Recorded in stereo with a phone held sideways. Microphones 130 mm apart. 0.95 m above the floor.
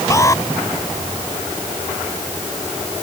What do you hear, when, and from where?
0.1 s an alarm: 25° left (ahead or behind)